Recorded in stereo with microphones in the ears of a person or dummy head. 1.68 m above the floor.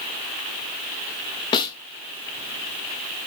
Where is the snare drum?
30° left (ahead or behind), 0.6 m.